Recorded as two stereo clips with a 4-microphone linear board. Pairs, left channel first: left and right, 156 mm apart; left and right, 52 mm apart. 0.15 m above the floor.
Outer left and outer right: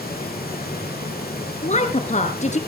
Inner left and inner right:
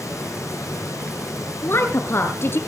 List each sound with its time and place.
0.0 s running water: 80° left, 5.5 m
1.6 s a woman speaking: 50° left (ahead or behind), 2.5 m